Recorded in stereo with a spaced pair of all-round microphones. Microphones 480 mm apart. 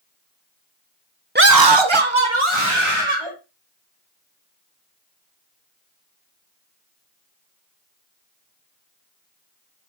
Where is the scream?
20° right (ahead or behind), 0.8 m; by 3.3 s 75° right (ahead or behind), 3 m.